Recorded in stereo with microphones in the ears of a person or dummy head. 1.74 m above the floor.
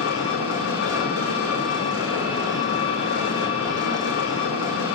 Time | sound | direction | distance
0.0 | an engine running | 80° left | 6 m